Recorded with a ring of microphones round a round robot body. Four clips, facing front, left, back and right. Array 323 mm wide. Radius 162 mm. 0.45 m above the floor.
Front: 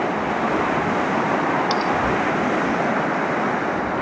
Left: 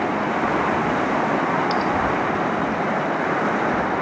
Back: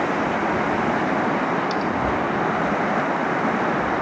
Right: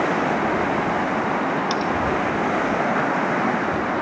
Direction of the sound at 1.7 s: 35° right.